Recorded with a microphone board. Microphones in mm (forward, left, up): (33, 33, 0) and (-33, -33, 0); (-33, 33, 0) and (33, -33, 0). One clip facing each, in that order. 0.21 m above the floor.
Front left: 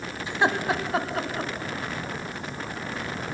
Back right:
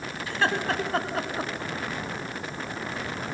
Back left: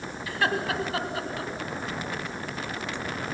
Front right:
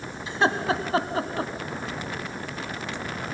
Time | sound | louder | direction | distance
0.3 | laughter | front left 2 dB, front right 4 dB | 5° right | 1.7 m